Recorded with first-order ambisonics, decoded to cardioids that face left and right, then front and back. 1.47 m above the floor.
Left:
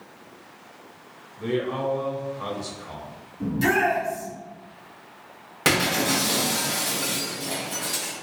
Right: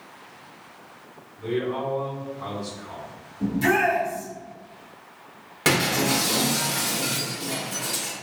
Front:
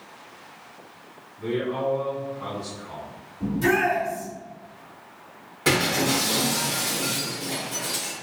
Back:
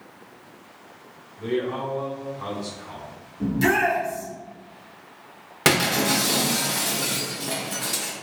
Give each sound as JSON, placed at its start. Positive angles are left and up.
{"t": 1.4, "sound": "a man speaking", "azimuth_deg": 105, "distance_m": 1.0}
{"t": 3.4, "sound": "a shout", "azimuth_deg": 165, "distance_m": 1.5}
{"t": 5.7, "sound": "breaking glass", "azimuth_deg": 175, "distance_m": 0.8}